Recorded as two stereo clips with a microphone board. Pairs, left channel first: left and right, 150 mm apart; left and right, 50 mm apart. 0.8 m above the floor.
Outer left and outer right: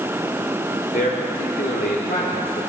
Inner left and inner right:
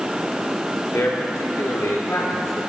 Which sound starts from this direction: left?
A man speaking, at 0.9 s.